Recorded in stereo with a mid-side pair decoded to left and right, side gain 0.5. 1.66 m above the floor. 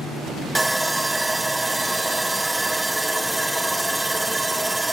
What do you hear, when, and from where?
0.6 s sawing: 10° right, 0.7 m